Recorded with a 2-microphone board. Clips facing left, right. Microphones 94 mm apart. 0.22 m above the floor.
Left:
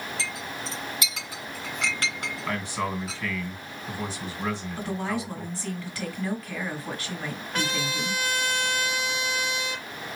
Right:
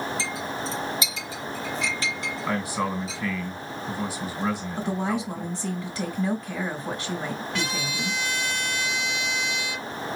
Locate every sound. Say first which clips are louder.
0.2 s a clink: right 4 dB; 65° left (ahead or behind), 2.5 m
2.5 s a man speaking: right 3 dB; 10° right (ahead or behind), 2 m
4.8 s a woman speaking: right 3 dB; 20° right (ahead or behind), 1.5 m
7.5 s a trumpet: left 1 dB; 45° left (ahead or behind), 1.6 m